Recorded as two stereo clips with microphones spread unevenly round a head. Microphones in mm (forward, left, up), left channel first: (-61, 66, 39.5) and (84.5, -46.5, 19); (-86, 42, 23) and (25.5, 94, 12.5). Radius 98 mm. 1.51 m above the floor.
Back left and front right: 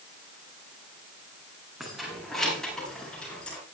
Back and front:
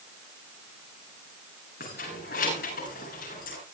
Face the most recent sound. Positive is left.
turn(degrees=-135)